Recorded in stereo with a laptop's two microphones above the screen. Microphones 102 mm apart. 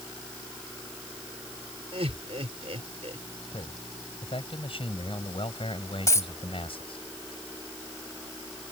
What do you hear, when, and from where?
1.9 s laughter: 80° right
3.5 s a man speaking: 65° left (ahead or behind)
6.1 s a dropped coin: 30° left (ahead or behind)